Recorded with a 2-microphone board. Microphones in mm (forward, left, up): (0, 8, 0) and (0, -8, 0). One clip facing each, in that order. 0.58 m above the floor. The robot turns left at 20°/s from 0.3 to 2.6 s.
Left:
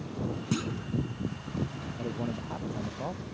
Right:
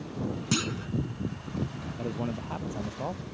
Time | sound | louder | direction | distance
0.5 | a clunk | right 5 dB | 80° right | ?
2.0 | a man speaking | right 1 dB | 60° right (ahead or behind) | ?